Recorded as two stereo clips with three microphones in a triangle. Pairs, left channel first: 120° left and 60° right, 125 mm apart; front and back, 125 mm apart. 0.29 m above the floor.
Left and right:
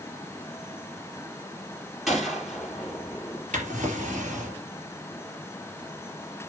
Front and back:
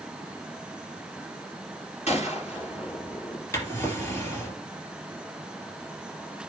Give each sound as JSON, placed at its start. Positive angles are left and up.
{"t": 2.1, "sound": "a gunshot", "azimuth_deg": 30, "distance_m": 3.5}
{"t": 3.5, "sound": "a drawer", "azimuth_deg": -70, "distance_m": 3.0}